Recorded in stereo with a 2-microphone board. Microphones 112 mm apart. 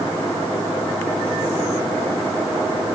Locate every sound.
Only background noise.